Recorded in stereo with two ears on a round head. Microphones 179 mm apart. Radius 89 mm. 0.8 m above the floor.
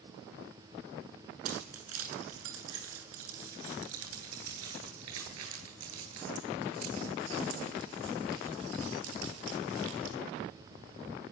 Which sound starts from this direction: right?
Keys jangling, at 1.4 s.